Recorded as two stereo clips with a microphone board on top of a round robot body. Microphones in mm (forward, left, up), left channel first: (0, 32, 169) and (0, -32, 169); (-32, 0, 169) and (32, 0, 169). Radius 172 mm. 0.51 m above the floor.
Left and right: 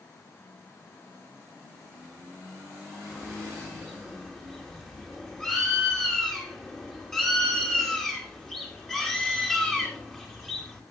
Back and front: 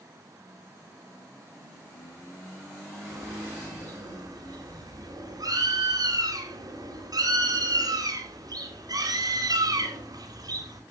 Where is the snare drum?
No snare drum in this recording.